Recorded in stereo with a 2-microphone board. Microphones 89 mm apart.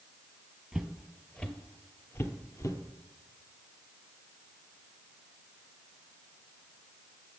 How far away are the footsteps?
About 1.3 m.